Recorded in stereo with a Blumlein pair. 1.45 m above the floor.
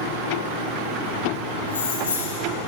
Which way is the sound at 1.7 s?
65° left.